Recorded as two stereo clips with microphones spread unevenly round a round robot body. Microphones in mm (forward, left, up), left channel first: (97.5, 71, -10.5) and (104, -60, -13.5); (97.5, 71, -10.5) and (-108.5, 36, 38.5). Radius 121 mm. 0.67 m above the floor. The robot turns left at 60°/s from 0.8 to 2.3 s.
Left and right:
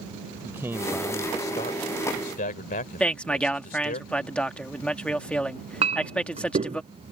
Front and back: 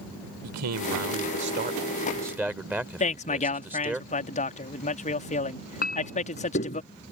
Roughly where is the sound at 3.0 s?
Ahead.